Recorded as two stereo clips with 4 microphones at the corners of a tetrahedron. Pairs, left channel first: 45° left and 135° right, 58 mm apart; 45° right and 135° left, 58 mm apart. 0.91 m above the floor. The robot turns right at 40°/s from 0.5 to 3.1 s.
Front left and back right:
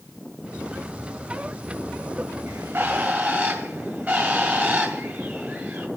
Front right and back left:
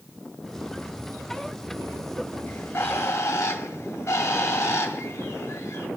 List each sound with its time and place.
2.5 s a bird: 105° right, 1.9 m; by 5.9 s 75° right, 1.9 m